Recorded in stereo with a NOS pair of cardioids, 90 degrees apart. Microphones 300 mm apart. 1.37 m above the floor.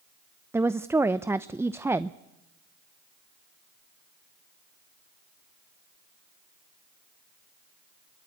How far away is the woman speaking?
About 0.7 m.